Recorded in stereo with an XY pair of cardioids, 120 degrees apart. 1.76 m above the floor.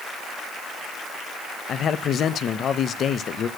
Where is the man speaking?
50° left, 0.6 m.